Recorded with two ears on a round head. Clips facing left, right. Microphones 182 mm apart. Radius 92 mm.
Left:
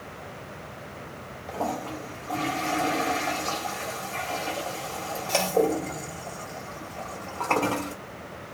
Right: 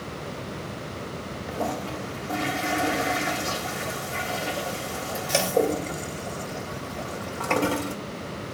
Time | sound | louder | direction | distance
1.5 | a toilet flushing | even | 15° right (ahead or behind) | 1.2 m